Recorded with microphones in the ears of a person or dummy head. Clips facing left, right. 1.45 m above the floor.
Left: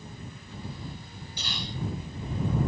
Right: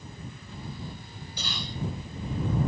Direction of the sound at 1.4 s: 80° right.